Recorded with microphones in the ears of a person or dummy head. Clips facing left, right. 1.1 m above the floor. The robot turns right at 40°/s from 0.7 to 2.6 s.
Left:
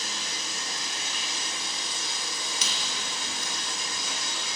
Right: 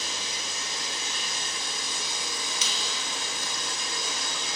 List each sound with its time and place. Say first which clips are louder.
0.0 s running water: right 1 dB; 160° right, 1.8 m; by 4.5 s 85° right, 1.8 m
2.6 s a squeak: right 1 dB; 65° left (ahead or behind), 1.2 m